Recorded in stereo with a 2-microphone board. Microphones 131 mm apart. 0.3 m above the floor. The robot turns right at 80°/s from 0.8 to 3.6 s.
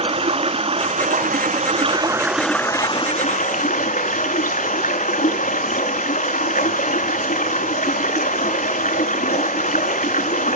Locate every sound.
0.0 s running water: 130° right, 0.9 m; by 10.6 s 95° left, 0.9 m